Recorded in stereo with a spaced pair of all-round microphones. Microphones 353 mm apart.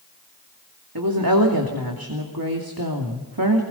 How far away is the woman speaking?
About 2.5 m.